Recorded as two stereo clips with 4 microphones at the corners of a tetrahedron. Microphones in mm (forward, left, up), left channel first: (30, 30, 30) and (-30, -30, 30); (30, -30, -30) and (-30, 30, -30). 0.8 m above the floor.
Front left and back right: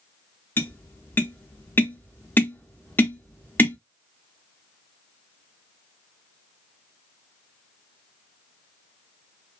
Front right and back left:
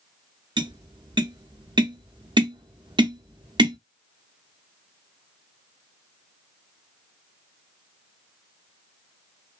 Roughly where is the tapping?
Behind left.